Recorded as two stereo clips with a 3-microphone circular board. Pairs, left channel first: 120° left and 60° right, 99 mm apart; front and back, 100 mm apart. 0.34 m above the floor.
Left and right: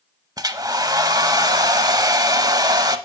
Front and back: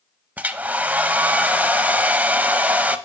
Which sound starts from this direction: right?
A hair dryer, at 0.4 s.